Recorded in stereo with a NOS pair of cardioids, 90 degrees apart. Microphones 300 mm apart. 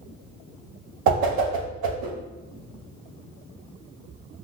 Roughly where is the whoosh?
Ahead right.